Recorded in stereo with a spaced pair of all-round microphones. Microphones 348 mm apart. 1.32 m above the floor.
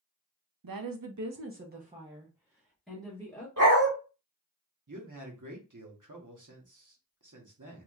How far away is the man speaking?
About 1.0 m.